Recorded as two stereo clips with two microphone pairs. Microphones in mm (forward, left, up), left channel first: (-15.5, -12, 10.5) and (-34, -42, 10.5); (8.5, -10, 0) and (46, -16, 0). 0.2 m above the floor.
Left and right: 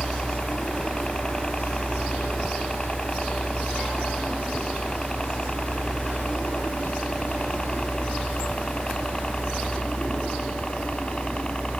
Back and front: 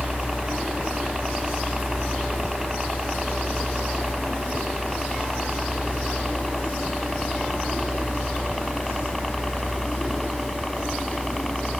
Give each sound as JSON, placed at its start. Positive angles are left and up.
{"t": 0.0, "sound": "a helicopter", "azimuth_deg": 35}